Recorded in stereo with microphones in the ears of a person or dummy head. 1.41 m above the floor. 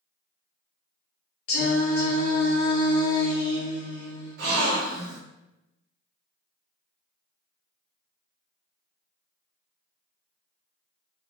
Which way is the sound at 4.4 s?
65° right (ahead or behind).